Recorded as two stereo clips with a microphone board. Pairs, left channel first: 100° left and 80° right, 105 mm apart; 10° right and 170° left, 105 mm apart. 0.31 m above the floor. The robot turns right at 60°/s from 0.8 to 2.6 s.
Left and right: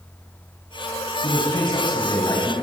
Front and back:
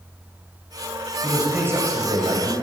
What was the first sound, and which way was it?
A man speaking, 85° left.